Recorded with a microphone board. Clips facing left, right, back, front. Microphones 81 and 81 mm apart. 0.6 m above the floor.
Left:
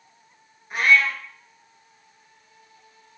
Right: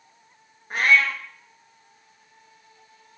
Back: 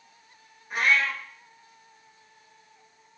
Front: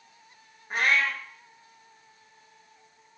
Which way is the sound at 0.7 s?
45° right.